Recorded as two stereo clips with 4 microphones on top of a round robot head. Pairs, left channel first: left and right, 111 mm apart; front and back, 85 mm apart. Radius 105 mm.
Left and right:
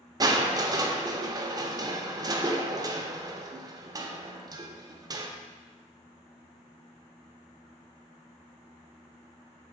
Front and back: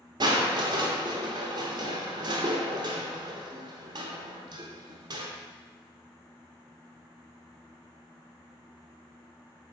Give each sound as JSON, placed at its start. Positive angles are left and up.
{"t": 0.2, "sound": "crushing", "azimuth_deg": -145, "distance_m": 0.9}